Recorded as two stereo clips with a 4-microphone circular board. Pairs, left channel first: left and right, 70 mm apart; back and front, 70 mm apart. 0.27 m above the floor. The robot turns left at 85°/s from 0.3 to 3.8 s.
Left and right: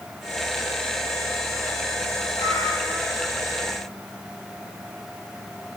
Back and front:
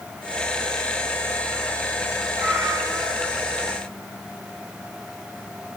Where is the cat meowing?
70° left, 3 m; by 3.3 s 10° right, 3 m.